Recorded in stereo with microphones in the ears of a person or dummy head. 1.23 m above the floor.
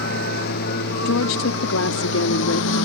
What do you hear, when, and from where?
0.0 s a lawn mower: 60° left (ahead or behind); by 2.9 s 80° left
1.1 s a woman speaking: 75° left (ahead or behind)